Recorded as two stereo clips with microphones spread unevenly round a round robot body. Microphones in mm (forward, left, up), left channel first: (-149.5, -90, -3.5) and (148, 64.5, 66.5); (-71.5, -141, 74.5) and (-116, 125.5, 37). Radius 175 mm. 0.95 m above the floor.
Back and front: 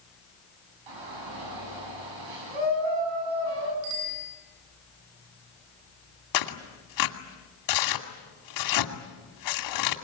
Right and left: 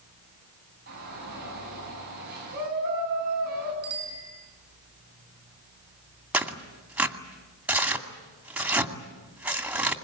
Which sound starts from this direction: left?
A bicycle bell, at 3.8 s.